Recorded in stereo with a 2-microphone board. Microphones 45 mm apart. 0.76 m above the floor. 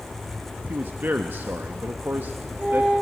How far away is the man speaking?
About 0.6 m.